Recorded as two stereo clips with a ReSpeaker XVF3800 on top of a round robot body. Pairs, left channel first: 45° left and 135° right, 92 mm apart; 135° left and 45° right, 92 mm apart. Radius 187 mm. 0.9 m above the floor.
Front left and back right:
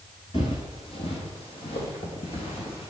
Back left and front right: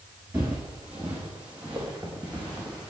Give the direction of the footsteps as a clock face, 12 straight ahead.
11 o'clock.